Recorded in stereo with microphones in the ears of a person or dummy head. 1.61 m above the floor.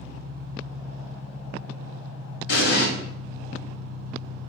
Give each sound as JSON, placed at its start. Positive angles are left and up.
{"t": 0.0, "sound": "an engine running", "side_deg": 65, "distance_m": 1.7}
{"t": 2.5, "sound": "an explosion", "side_deg": 80, "distance_m": 1.4}